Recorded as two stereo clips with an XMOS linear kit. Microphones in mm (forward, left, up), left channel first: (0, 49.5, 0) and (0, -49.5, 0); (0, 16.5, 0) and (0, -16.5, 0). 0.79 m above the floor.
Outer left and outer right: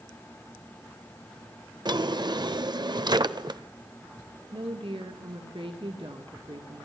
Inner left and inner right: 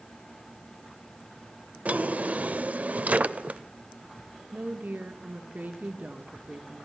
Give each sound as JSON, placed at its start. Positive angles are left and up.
{"t": 1.9, "sound": "a drawer", "side_deg": -50, "distance_m": 0.6}
{"t": 4.5, "sound": "a woman speaking", "side_deg": -65, "distance_m": 2.0}